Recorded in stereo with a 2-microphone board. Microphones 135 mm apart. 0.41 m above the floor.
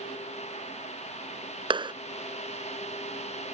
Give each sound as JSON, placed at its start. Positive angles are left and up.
{"t": 1.7, "sound": "a clap", "side_deg": -35}